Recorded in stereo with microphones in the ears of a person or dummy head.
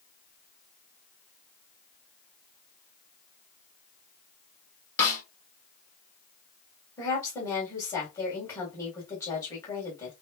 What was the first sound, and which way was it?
A snare drum, 15° left (ahead or behind).